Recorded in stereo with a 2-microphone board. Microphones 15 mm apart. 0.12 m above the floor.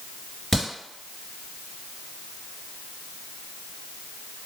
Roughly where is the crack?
Left.